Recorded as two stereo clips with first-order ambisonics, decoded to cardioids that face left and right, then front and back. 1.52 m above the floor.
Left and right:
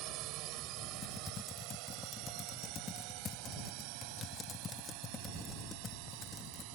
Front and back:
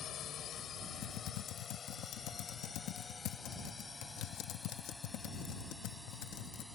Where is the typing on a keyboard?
25° left.